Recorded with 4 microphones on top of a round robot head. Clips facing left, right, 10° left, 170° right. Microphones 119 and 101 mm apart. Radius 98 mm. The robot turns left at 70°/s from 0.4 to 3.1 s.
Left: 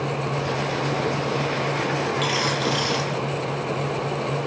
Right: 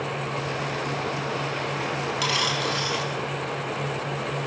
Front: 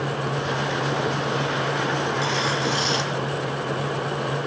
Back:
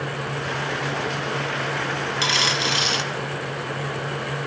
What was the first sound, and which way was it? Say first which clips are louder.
A dropped coin: left 3 dB, front 1 dB; 150° right.